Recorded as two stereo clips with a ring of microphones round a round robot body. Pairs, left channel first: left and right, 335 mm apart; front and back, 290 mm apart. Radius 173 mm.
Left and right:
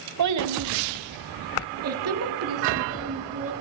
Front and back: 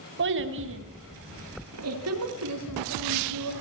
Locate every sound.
0.2 s a child speaking: 125° right, 2 m; by 3.5 s 140° right, 4 m